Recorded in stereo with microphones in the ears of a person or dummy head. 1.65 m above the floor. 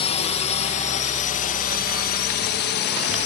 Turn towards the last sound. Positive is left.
turn(degrees=55)  # may be behind; listen again after turning